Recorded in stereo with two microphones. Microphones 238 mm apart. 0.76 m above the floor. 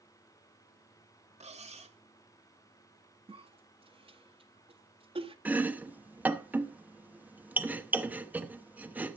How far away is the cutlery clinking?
About 1.2 m.